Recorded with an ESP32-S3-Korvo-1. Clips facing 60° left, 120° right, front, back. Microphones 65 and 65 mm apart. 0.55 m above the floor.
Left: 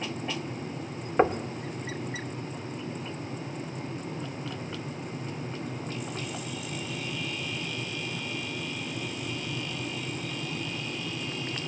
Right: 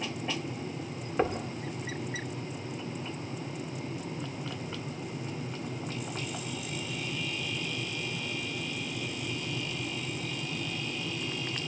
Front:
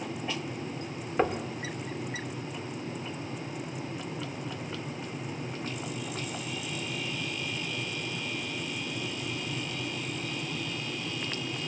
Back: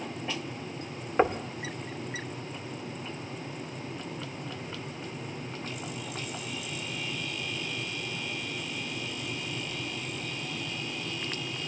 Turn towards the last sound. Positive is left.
turn(degrees=110)